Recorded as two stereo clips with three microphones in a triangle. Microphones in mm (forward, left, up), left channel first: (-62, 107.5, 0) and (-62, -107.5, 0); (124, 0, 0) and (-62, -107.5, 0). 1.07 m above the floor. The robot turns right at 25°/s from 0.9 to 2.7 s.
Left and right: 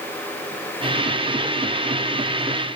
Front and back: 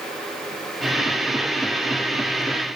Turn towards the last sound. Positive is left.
No sound to turn to.